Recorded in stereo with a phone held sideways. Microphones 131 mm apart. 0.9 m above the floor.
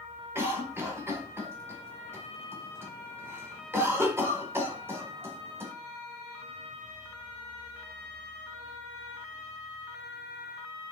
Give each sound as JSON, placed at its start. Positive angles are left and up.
{"t": 0.3, "sound": "a cough", "side_deg": -20, "distance_m": 1.4}